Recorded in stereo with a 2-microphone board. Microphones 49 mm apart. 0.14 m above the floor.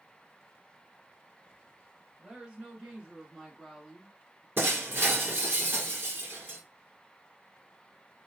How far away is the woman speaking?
About 1.8 m.